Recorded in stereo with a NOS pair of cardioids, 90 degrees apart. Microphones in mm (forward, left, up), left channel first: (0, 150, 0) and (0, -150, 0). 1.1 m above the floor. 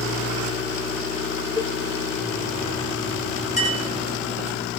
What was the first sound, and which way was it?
A cowbell, 15° left.